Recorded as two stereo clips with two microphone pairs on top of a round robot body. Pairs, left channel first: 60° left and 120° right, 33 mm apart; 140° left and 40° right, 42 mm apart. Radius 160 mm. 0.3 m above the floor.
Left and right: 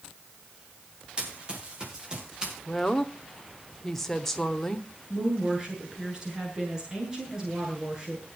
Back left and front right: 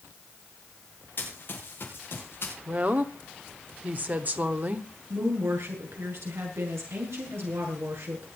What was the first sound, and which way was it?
Running footsteps, straight behind.